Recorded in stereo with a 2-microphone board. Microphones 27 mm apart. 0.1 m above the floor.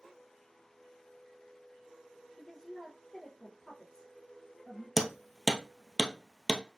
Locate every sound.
2.4 s a woman speaking: 30° left (ahead or behind), 2.5 m
5.0 s hammering: 5° right (ahead or behind), 0.9 m